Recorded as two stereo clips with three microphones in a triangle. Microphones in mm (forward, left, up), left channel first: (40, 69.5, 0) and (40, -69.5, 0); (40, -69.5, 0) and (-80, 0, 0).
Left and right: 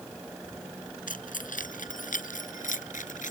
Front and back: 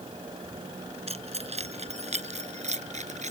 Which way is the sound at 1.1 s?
105° left.